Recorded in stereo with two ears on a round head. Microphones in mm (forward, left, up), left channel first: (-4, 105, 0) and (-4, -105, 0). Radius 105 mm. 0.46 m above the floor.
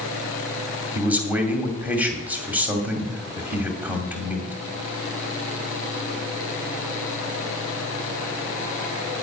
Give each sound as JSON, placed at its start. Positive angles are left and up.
{"t": 0.9, "sound": "a man speaking", "side_deg": -5, "distance_m": 2.5}